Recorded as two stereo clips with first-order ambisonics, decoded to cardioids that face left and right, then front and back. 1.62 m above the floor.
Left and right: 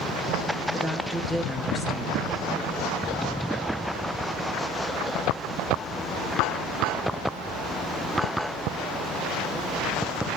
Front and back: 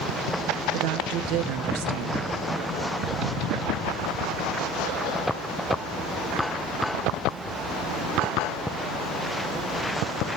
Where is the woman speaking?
Straight behind, 1.5 m.